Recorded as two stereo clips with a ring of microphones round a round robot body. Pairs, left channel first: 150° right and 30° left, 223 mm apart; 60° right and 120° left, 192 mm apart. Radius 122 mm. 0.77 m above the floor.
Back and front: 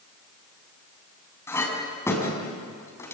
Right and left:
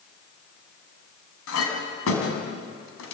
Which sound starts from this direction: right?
A clink, at 1.5 s.